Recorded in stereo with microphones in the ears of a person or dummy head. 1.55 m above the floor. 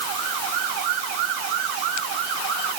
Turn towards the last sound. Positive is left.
No sound to turn to.